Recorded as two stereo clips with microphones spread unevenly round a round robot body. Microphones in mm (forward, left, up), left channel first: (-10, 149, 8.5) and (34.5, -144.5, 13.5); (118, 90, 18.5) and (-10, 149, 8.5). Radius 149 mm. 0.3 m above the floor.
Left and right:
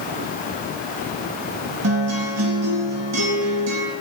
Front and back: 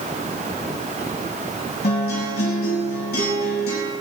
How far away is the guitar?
About 3.5 m.